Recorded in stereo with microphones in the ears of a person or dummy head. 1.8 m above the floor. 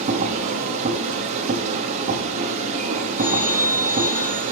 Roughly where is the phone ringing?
Centre.